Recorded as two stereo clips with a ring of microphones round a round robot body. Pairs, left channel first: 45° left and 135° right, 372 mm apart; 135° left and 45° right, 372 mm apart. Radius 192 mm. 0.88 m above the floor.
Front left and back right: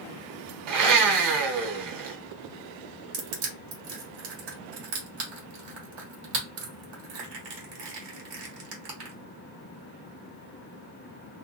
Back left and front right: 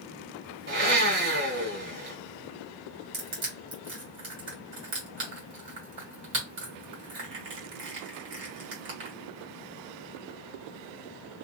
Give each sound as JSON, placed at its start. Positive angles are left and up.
{"t": 0.7, "sound": "a blender", "azimuth_deg": -105, "distance_m": 1.7}
{"t": 3.1, "sound": "crushing", "azimuth_deg": -105, "distance_m": 1.5}